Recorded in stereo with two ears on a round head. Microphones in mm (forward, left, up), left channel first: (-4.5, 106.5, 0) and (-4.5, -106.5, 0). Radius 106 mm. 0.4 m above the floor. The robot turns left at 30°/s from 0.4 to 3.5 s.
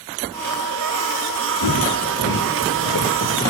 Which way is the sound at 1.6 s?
75° left (ahead or behind).